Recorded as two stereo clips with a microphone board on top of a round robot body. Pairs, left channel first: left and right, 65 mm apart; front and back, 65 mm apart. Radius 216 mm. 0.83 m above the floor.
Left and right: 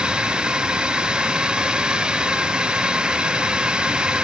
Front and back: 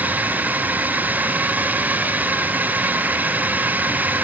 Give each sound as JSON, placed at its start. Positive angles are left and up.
{"t": 0.0, "sound": "a drone", "azimuth_deg": -150}